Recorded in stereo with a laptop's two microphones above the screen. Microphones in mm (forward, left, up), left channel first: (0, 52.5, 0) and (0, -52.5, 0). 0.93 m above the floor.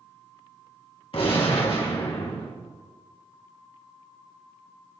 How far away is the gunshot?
About 1.4 m.